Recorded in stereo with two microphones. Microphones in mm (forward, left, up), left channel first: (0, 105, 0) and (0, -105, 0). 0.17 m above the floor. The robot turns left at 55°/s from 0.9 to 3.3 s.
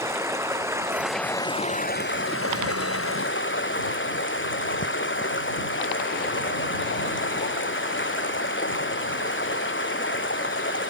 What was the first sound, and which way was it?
Running water, 170° right.